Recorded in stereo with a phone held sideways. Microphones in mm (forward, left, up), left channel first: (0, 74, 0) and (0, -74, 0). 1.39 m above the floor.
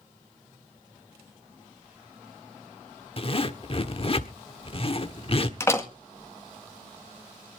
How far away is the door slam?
About 1.8 m.